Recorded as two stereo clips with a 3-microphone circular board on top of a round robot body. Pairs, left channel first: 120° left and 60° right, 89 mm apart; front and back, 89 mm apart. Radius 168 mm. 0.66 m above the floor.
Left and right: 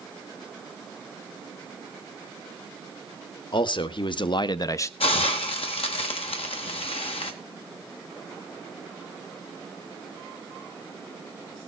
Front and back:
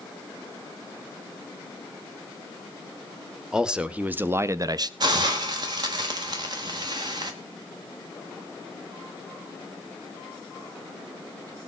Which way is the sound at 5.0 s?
135° left.